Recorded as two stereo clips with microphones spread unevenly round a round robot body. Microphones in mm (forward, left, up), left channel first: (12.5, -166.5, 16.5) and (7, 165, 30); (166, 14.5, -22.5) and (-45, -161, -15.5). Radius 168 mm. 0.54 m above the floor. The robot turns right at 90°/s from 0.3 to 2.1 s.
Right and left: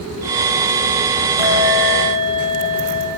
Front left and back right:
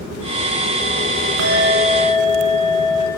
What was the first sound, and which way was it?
A bell, 115° right.